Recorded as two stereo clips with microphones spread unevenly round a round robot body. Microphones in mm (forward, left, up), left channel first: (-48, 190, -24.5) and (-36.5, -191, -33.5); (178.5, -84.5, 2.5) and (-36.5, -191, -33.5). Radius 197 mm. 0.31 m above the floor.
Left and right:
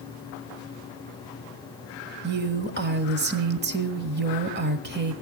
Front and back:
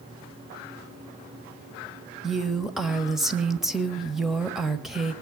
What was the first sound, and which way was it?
A woman speaking, 85° right.